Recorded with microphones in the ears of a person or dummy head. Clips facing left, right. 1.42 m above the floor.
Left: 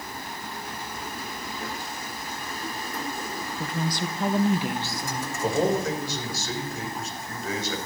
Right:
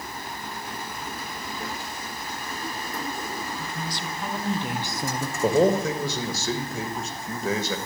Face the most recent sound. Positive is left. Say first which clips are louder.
# right 4 dB
turn(degrees=-75)  # may be behind; listen again after turning